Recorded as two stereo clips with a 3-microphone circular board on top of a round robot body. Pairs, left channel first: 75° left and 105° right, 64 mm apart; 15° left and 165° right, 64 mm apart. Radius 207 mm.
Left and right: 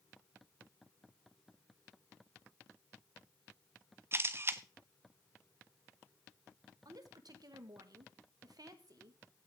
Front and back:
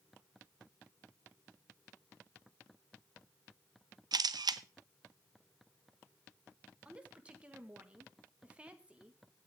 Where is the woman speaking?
95° right, 2 m.